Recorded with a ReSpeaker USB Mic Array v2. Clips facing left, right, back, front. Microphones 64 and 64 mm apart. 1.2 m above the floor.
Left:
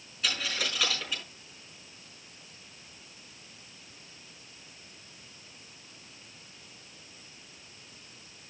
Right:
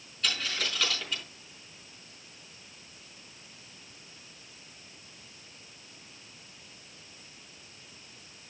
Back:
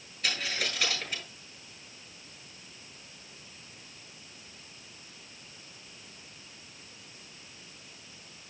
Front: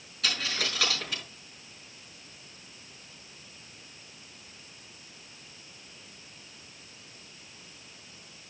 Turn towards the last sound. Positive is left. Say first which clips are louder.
# even, front 1 dB
turn(degrees=5)